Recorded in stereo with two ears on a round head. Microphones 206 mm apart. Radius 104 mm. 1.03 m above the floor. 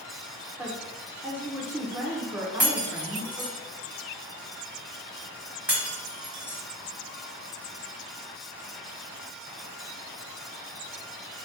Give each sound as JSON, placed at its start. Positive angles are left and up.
{"t": 0.6, "sound": "a woman speaking", "side_deg": -5, "distance_m": 0.8}
{"t": 2.6, "sound": "breaking glass", "side_deg": -5, "distance_m": 1.2}